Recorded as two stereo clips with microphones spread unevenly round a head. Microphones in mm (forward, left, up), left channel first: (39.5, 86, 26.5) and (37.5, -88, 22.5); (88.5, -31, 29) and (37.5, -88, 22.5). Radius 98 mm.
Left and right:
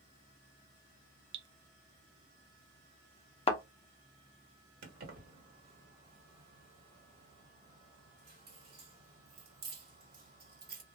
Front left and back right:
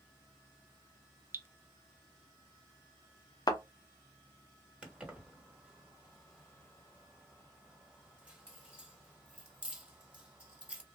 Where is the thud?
40° left, 0.6 m.